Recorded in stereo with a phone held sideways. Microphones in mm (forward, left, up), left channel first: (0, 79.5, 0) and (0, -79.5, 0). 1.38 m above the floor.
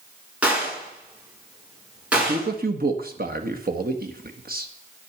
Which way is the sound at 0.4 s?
10° right (ahead or behind).